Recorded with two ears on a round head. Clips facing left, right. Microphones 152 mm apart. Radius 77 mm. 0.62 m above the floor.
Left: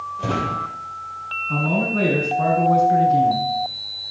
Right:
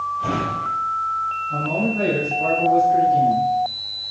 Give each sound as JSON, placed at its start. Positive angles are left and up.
{"t": 0.2, "sound": "a drawer", "side_deg": 55, "distance_m": 7.5}
{"t": 1.5, "sound": "a man speaking", "side_deg": 70, "distance_m": 7.0}